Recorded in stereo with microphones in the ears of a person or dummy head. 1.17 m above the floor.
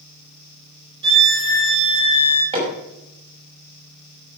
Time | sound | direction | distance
1.0 | a violin | 30° right (ahead or behind) | 6.5 m
2.5 | hammering | 35° right (ahead or behind) | 6.5 m